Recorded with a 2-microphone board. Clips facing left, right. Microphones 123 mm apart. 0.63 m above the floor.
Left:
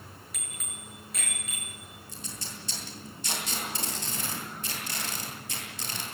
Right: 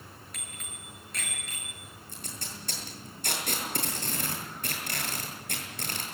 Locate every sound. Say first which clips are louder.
0.3 s a bicycle bell: left 1 dB; 5° left (ahead or behind), 7.5 m
2.1 s tape being pulled: even; 55° right (ahead or behind), 9.5 m